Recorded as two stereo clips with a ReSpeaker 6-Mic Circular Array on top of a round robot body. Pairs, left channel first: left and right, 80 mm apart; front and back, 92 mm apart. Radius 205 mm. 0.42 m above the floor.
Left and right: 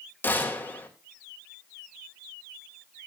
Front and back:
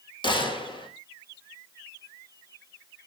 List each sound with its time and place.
0.2 s a gunshot: 25° left, 3.5 m